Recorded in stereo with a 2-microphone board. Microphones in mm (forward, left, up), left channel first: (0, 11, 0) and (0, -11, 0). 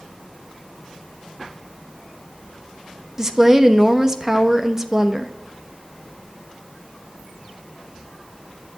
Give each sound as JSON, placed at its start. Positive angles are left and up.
{"t": 3.2, "sound": "a woman speaking", "side_deg": -20, "distance_m": 1.1}